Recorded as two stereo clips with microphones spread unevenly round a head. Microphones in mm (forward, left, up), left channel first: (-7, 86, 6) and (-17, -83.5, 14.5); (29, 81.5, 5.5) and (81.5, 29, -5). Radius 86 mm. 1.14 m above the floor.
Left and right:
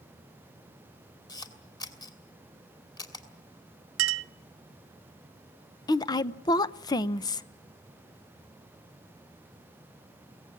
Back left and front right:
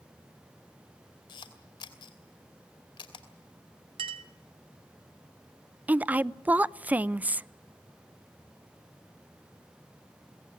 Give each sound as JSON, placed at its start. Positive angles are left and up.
{"t": 1.3, "sound": "a camera shutter", "azimuth_deg": 155, "distance_m": 2.5}
{"t": 4.0, "sound": "a clink", "azimuth_deg": -90, "distance_m": 0.8}
{"t": 5.9, "sound": "a woman speaking", "azimuth_deg": 20, "distance_m": 0.6}